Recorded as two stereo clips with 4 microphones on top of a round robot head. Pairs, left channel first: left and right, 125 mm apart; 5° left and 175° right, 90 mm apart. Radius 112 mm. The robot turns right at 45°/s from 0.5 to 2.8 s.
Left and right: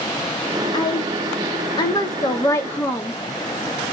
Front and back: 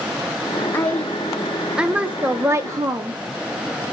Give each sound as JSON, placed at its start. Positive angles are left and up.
{"t": 0.7, "sound": "a woman speaking", "azimuth_deg": 65, "distance_m": 1.0}